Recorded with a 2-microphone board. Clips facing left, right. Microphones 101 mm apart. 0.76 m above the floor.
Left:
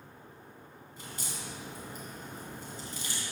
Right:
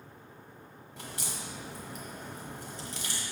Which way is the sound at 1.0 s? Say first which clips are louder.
Right 2 dB; 80° right.